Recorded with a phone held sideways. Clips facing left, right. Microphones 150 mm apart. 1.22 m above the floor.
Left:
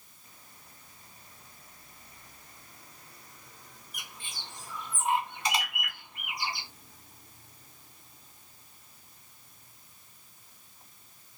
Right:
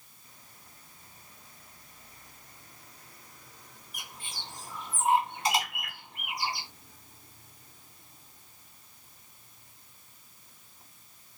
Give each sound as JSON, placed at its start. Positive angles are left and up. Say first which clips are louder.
{"t": 3.9, "sound": "a bird", "louder": "right 2 dB", "side_deg": -30, "distance_m": 2.0}